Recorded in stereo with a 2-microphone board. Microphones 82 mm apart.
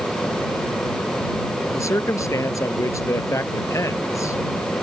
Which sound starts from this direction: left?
A man speaking, at 1.7 s.